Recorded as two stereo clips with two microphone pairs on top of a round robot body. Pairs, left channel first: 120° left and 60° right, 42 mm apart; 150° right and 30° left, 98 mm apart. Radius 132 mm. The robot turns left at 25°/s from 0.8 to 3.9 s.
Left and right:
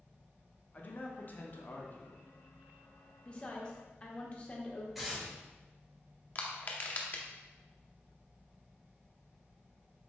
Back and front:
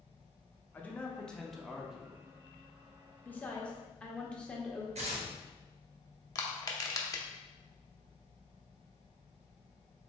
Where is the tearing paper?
25° left, 0.7 m.